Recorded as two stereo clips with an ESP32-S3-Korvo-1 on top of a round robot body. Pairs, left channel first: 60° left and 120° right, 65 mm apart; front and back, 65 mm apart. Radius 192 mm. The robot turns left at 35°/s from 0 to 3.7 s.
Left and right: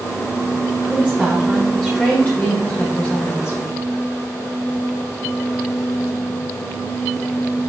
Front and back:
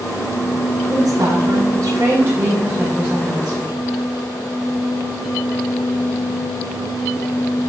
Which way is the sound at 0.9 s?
170° left.